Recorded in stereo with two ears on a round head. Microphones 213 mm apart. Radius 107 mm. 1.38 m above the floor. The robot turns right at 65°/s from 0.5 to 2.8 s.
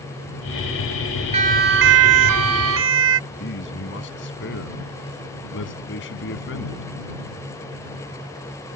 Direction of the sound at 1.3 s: 30° right (ahead or behind).